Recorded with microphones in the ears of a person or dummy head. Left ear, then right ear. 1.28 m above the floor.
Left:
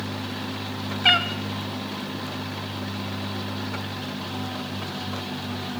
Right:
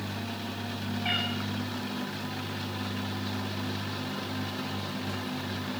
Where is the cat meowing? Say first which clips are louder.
Left 11 dB; 55° left (ahead or behind), 0.9 m.